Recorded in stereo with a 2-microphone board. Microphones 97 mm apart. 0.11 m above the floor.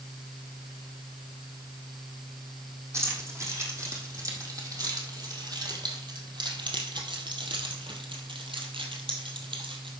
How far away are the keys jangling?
About 3.5 m.